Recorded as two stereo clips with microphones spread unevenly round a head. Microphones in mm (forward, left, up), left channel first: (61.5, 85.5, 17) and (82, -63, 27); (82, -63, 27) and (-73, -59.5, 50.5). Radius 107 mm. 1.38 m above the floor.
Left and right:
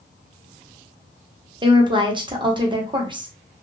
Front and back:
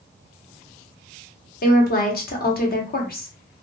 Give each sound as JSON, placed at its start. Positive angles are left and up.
{"t": 1.6, "sound": "a woman speaking", "azimuth_deg": -20, "distance_m": 1.1}